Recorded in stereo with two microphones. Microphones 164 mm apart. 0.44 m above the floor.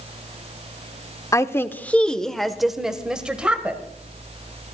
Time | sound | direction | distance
1.3 | a woman speaking | 20° left (ahead or behind) | 0.7 m